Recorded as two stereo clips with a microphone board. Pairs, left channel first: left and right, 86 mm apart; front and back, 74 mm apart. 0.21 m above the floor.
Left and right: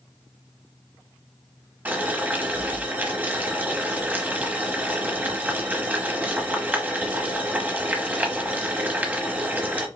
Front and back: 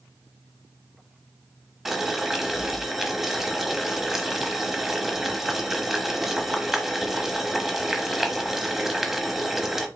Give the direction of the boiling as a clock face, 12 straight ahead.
3 o'clock.